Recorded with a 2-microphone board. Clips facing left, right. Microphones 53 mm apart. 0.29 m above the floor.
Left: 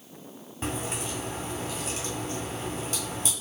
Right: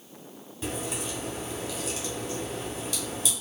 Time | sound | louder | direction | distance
0.6 | a crack | left 1 dB | 40° left (ahead or behind) | 2.5 m